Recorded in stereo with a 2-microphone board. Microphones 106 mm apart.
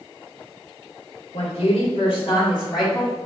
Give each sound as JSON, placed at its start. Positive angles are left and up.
{"t": 1.3, "sound": "a woman speaking", "side_deg": 70, "distance_m": 1.6}